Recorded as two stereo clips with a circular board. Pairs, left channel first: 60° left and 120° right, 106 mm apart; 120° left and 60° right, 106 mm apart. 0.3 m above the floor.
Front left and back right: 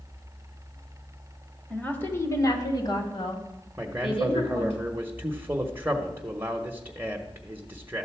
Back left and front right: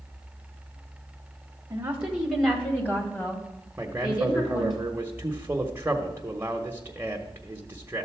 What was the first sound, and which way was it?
A woman speaking, 10° right.